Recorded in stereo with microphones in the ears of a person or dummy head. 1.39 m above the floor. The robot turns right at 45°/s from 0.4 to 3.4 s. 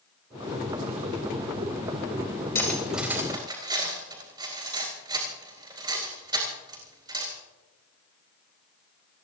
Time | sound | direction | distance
2.5 | cutlery clinking | 15° left (ahead or behind) | 4 m